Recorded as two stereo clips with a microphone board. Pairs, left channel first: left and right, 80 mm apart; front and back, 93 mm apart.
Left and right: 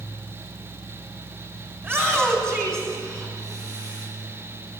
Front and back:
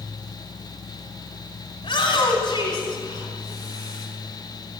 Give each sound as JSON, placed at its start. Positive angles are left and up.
{"t": 1.8, "sound": "a shout", "azimuth_deg": -25, "distance_m": 3.0}